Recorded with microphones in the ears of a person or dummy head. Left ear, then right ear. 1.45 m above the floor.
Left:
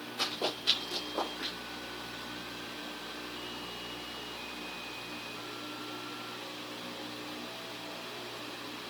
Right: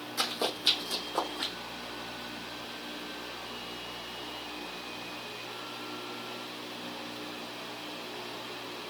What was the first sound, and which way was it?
Running footsteps, 60° right (ahead or behind).